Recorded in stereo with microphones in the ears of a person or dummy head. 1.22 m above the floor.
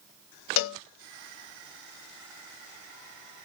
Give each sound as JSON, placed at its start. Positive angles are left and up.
{"t": 0.6, "sound": "a cowbell", "side_deg": 65, "distance_m": 0.8}